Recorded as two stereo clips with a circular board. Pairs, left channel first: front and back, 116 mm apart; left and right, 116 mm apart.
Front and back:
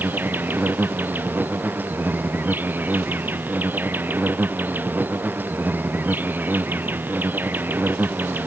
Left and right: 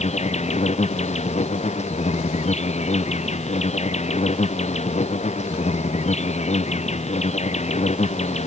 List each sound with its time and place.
0.0 s an insect: 105° left